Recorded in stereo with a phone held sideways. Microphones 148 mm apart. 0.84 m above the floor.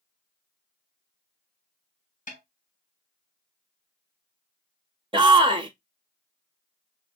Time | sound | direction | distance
2.3 | a snare drum | 65° left (ahead or behind) | 1.7 m
5.1 | a shout | 35° right (ahead or behind) | 0.9 m